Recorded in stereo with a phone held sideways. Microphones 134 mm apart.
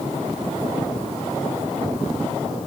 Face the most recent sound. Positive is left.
No sound to turn to.